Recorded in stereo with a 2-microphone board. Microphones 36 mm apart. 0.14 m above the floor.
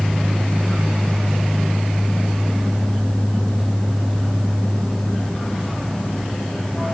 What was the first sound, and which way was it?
Only background noise.